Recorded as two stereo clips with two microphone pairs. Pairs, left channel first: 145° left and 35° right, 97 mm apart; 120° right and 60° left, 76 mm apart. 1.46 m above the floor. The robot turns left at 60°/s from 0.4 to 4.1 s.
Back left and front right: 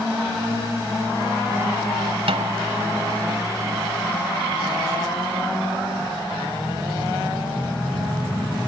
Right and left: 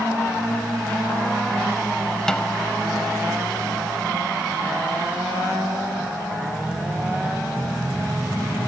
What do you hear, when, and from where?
2.3 s a snare drum: 40° right; by 2.6 s 55° right